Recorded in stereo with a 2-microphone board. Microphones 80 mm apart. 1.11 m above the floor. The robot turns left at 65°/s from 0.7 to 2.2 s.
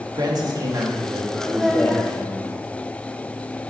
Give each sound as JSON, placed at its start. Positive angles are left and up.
{"t": 0.1, "sound": "a man speaking", "azimuth_deg": -125, "distance_m": 1.5}
{"t": 1.5, "sound": "a child speaking", "azimuth_deg": -160, "distance_m": 0.6}